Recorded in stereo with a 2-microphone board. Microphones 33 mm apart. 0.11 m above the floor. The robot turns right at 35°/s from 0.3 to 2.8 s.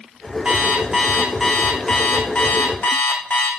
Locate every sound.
0.5 s an alarm clock: 30° right, 3.5 m; by 3.5 s 55° left, 3.5 m